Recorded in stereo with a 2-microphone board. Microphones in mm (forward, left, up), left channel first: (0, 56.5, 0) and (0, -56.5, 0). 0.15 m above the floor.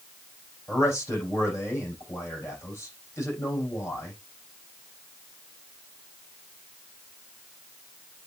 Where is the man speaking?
25° left (ahead or behind), 7 m.